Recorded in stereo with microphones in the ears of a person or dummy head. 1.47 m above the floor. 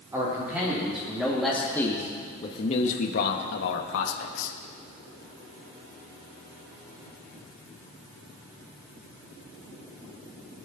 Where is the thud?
I don't hear a thud.